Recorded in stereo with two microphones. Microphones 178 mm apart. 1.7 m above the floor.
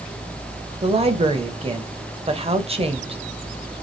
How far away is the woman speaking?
About 0.8 m.